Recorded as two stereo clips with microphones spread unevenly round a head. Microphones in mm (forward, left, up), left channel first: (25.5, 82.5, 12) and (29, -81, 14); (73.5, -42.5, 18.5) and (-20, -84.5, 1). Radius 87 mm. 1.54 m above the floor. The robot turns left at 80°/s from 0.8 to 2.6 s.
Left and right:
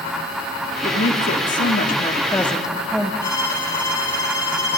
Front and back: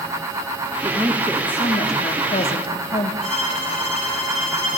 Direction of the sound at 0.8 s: 140° left.